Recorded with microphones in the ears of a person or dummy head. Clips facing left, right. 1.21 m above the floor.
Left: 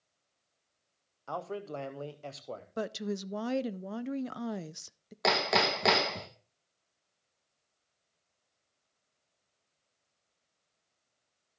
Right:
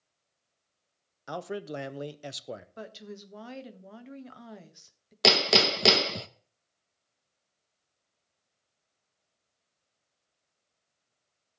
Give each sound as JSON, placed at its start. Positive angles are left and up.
{"t": 1.3, "sound": "a man speaking", "side_deg": -20, "distance_m": 0.7}
{"t": 2.8, "sound": "a woman speaking", "side_deg": 55, "distance_m": 0.5}
{"t": 5.2, "sound": "hammering", "side_deg": -35, "distance_m": 0.6}